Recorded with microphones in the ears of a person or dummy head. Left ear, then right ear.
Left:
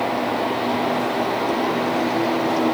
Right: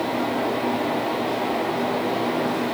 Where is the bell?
No bell in this recording.